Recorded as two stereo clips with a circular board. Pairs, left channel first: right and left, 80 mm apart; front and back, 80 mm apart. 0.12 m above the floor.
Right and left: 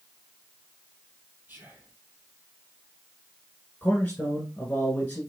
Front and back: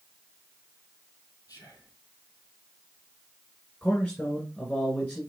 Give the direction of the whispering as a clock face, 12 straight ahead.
11 o'clock.